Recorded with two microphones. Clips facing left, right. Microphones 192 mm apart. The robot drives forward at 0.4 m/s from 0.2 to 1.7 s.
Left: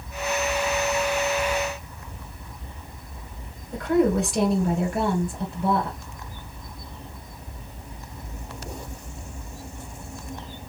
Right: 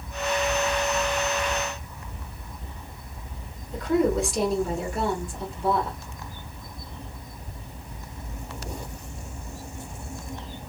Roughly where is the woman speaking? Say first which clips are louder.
Left 2 dB; left.